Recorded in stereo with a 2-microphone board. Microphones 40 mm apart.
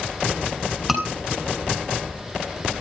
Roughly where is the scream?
Centre.